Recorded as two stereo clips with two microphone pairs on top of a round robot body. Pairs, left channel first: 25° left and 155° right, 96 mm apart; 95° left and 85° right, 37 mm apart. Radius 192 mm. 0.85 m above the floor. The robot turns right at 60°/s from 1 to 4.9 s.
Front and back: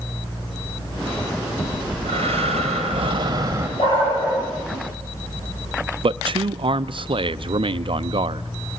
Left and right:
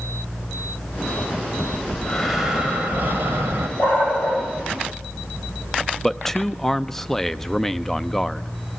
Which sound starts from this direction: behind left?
Breathing, at 1.6 s.